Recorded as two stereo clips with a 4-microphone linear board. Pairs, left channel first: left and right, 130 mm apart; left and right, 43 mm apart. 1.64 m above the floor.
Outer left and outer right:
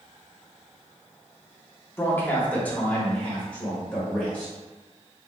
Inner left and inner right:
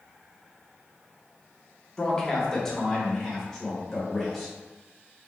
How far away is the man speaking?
About 0.8 m.